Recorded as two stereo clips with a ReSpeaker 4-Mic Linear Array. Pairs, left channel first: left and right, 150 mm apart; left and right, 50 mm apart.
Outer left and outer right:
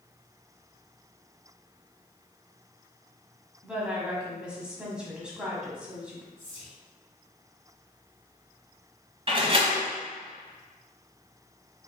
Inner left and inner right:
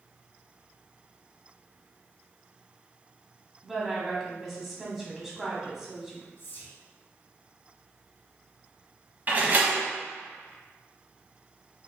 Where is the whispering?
40° left (ahead or behind), 2.0 m.